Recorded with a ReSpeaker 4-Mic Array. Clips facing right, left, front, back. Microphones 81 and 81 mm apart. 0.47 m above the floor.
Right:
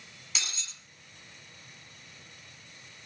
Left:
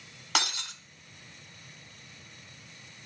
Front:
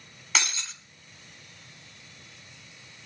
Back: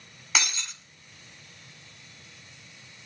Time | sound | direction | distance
0.3 | breaking glass | 95° left | 1.7 m